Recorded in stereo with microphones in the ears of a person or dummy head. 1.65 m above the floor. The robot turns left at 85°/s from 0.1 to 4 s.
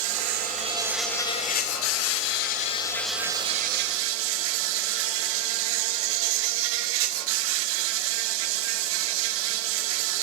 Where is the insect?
105° right, 0.8 m; by 10.2 s 75° right, 0.8 m.